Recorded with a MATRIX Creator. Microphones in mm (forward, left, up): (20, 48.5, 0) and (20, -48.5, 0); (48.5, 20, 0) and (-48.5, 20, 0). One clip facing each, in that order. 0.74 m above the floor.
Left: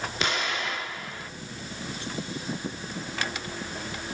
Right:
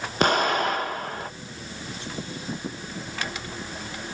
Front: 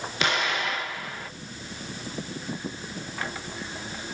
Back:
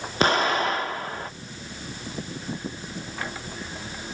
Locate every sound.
0.2 s an explosion: 130° right, 0.7 m